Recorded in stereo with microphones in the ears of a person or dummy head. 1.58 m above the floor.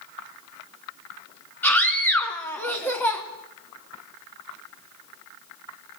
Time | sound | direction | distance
1.6 | a scream | 10° left (ahead or behind) | 2.5 m